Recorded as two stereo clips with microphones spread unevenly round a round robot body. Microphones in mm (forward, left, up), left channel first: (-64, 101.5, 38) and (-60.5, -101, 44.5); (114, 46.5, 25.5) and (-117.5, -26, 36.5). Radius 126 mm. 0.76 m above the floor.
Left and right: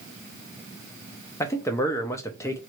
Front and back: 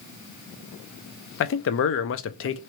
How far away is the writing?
I don't hear writing.